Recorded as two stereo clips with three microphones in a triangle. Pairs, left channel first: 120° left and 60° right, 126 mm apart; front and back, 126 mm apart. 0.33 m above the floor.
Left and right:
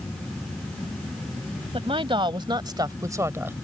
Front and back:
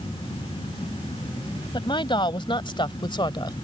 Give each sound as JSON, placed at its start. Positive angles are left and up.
{"t": 1.7, "sound": "a woman speaking", "azimuth_deg": -35}